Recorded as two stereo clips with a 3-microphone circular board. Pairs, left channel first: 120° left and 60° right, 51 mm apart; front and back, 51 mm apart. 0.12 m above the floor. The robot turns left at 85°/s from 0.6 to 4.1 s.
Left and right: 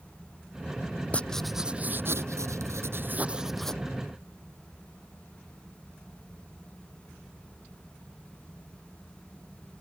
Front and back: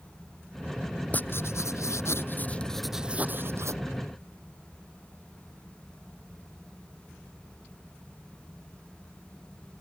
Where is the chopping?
No chopping in this recording.